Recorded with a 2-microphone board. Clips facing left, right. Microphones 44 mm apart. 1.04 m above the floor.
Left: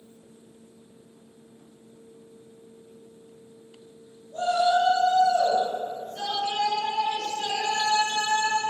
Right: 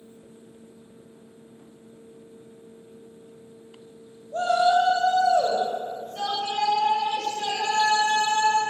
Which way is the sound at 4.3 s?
75° right (ahead or behind).